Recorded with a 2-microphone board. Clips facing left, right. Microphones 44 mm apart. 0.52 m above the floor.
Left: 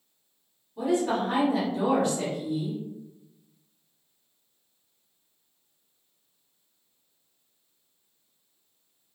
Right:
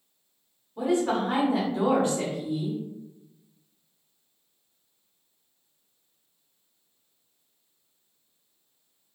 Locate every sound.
0.8 s a woman speaking: 25° right (ahead or behind), 1.5 m